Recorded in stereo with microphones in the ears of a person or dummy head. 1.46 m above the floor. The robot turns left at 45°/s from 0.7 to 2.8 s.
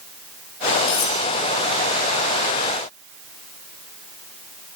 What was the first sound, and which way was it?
Cutlery clinking, 65° left (ahead or behind).